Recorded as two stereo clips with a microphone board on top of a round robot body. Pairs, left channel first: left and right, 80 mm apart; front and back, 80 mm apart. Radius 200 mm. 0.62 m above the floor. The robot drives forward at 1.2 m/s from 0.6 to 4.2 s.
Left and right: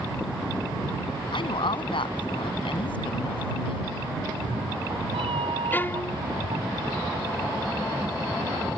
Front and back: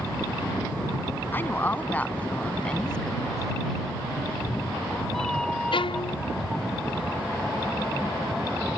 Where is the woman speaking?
65° left; by 3.9 s 90° left.